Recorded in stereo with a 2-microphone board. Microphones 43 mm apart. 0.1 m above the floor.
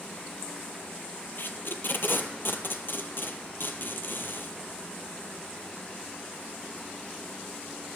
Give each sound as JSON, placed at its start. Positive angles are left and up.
{"t": 1.4, "sound": "tape being pulled", "side_deg": 60, "distance_m": 0.8}